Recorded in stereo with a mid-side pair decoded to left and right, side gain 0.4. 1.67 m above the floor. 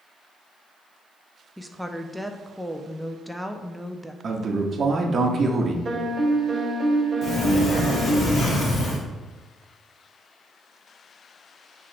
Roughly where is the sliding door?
Ahead left.